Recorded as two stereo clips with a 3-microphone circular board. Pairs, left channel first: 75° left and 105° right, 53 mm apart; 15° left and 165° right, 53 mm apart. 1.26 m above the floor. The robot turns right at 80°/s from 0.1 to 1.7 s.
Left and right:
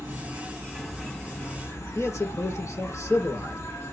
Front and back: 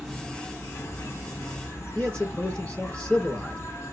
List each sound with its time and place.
0.0 s an insect: 80° right, 2.5 m; by 3.9 s 50° left, 2.5 m
1.9 s a man speaking: 80° left, 4 m